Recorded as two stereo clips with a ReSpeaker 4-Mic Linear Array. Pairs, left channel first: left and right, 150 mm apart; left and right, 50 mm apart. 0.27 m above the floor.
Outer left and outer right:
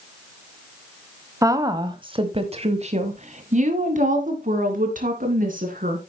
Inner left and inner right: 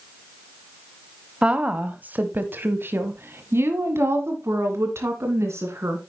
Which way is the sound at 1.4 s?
20° right (ahead or behind).